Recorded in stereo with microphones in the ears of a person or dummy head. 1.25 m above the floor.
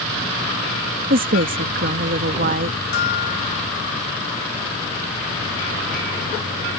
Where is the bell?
65° left (ahead or behind).